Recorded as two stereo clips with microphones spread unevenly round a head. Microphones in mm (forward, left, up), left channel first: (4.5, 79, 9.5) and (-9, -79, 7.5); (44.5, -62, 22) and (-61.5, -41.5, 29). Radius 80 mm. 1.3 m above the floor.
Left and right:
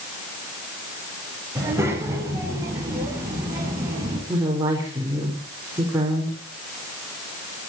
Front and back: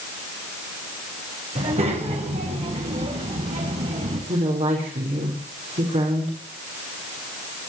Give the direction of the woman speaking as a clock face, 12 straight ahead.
6 o'clock.